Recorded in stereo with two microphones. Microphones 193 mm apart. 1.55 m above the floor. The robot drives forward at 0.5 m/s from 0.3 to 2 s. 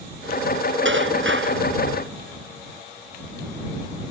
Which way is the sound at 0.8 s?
85° right.